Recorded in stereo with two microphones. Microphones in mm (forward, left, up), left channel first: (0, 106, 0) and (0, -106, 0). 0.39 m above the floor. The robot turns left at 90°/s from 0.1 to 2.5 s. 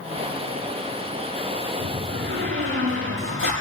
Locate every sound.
1.8 s a door slam: 40° right, 8.5 m; by 3.5 s 105° right, 8.5 m